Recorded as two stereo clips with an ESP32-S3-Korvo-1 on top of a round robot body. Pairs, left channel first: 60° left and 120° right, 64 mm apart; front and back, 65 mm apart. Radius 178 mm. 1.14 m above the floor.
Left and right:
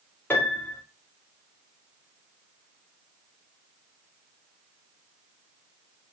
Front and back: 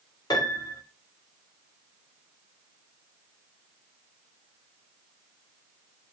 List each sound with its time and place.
0.3 s a piano: straight ahead, 2.5 m